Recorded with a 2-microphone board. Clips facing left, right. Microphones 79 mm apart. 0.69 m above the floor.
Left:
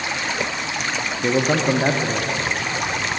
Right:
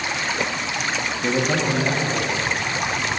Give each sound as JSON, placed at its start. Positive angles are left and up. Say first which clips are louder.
{"t": 1.2, "sound": "a man speaking", "louder": "left 3 dB", "side_deg": 15, "distance_m": 0.7}